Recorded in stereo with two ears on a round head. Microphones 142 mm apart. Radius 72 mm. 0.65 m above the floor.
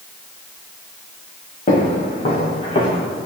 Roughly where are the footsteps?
Left.